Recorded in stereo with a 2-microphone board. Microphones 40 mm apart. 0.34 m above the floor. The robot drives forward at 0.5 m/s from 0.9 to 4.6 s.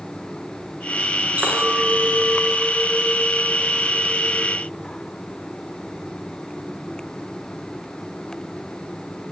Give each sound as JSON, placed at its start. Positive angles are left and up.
{"t": 1.4, "sound": "a clink", "side_deg": -40, "distance_m": 3.5}